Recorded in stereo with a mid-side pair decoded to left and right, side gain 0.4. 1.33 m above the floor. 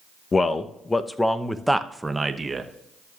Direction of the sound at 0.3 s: 40° left.